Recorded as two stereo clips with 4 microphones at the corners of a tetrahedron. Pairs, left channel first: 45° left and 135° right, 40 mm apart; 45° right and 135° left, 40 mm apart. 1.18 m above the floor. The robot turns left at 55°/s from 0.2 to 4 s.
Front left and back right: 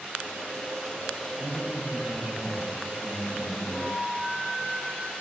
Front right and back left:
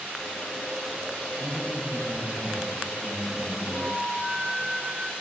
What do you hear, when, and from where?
1.4 s a man speaking: 150° left, 6.5 m; by 3.6 s 25° left, 6.5 m
3.7 s a flute: 35° left, 8 m; by 5.1 s 20° left, 8 m